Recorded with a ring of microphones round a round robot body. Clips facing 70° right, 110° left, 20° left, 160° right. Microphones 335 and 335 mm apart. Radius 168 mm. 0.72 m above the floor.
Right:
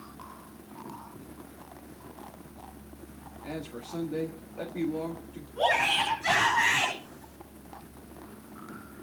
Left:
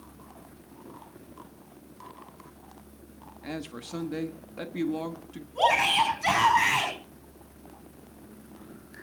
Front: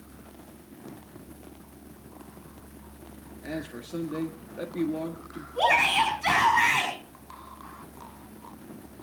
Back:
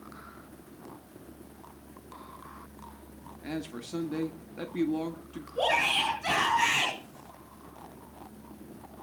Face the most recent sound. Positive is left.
turn(degrees=95)